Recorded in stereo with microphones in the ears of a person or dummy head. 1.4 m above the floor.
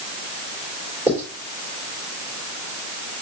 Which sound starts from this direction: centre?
Writing, at 1.1 s.